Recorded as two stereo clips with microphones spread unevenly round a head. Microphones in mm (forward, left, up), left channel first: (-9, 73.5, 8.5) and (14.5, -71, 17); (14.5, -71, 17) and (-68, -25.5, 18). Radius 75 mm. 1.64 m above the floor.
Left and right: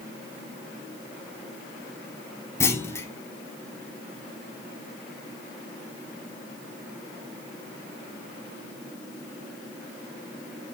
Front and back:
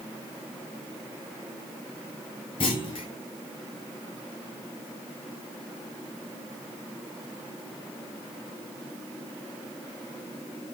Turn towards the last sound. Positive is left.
turn(degrees=25)